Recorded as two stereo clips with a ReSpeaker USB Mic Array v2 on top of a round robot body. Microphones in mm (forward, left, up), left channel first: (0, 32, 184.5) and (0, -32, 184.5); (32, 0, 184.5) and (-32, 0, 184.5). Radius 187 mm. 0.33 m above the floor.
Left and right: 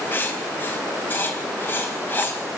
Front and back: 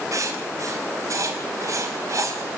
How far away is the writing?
About 4 m.